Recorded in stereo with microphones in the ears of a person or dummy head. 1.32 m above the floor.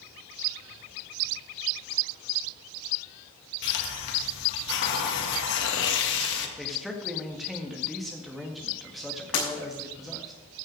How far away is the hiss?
About 1.7 m.